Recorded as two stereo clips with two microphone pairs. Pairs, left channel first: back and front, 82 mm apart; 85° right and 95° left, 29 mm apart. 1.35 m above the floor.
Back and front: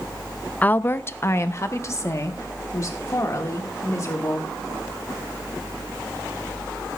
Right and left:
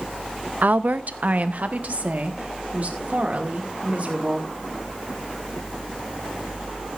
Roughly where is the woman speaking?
Left.